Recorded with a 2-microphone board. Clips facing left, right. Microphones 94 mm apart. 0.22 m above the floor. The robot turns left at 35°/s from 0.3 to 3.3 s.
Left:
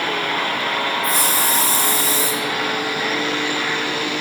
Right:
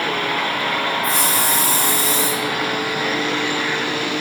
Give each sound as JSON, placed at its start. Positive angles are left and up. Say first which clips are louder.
{"t": 1.0, "sound": "a hiss", "louder": "even", "azimuth_deg": -150, "distance_m": 3.0}